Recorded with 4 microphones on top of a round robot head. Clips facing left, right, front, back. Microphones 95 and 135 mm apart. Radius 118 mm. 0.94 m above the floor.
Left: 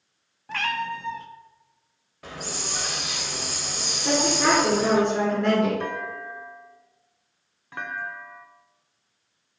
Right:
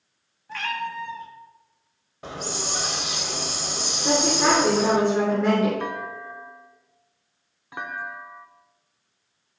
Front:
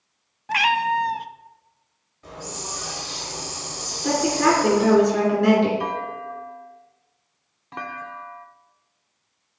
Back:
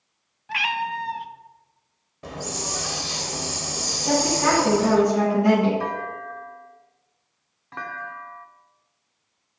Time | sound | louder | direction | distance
0.5 | a cat meowing | left 1 dB, front 6 dB | 45° left | 0.6 m
2.2 | a hiss | right 3 dB, back 4 dB | 155° right | 1.1 m
4.0 | a woman speaking | right 1 dB, front 2 dB | straight ahead | 3.5 m
5.8 | a clunk | even, front 1 dB | 30° right | 0.9 m